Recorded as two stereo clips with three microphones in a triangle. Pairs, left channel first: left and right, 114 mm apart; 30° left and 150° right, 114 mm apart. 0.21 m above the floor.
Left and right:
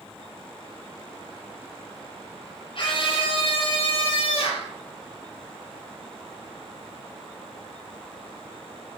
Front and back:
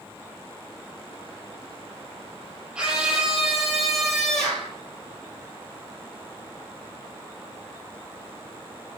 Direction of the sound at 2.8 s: 130° left.